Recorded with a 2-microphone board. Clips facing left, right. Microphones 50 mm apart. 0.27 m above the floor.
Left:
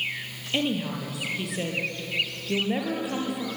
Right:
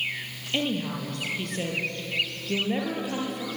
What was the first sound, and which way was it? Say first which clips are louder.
A woman speaking: left 1 dB; 5° left (ahead or behind).